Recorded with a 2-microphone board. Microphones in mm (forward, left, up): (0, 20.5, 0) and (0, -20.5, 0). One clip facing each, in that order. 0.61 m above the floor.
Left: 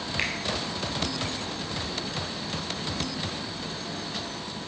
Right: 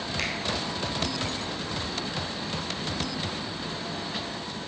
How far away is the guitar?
No guitar in this recording.